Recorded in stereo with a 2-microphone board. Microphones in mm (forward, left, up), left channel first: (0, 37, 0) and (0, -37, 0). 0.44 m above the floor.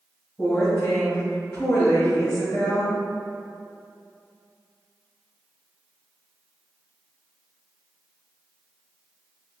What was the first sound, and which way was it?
A woman speaking, 50° left (ahead or behind).